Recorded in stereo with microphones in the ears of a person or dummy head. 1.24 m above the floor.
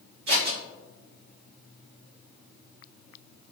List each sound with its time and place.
0.3 s scissors: 65° right (ahead or behind), 1.6 m